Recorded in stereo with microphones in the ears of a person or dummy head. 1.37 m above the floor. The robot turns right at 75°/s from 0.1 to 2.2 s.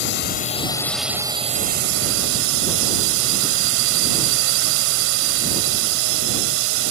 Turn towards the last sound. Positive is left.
turn(degrees=-90)